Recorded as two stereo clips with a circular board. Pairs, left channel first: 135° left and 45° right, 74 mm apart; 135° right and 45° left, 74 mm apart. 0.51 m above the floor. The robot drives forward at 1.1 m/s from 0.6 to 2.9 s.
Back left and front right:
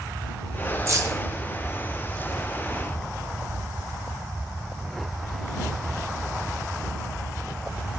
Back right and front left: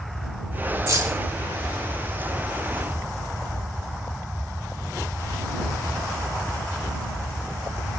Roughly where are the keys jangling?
Ahead.